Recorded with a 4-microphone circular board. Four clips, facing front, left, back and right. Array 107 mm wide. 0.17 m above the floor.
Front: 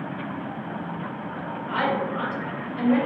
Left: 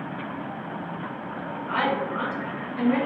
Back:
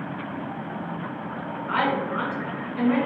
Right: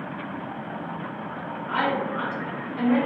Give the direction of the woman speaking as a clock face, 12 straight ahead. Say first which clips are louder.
Even, back 1 dB; 6 o'clock.